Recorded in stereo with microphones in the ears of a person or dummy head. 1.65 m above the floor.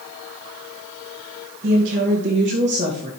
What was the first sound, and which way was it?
A woman speaking, 50° right (ahead or behind).